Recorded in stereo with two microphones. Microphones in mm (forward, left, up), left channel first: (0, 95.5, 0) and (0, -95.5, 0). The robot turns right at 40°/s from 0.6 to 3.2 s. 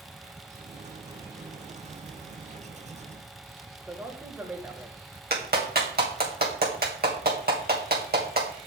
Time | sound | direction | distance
3.8 | a man speaking | 10° right (ahead or behind) | 2.0 m
5.3 | a clap | 55° right (ahead or behind) | 2 m